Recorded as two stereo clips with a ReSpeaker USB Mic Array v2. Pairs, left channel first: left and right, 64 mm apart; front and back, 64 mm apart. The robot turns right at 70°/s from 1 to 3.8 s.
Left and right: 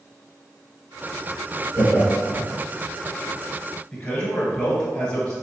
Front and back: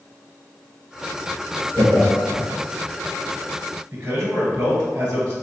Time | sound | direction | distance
1.7 | laughter | 65° right | 1.6 m
3.9 | a man speaking | 130° left | 1.5 m